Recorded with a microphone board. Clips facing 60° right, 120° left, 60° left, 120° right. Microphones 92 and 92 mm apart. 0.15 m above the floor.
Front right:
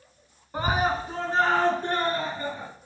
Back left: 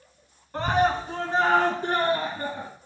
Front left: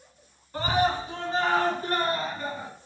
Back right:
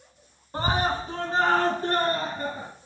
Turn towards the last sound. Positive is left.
turn(degrees=-170)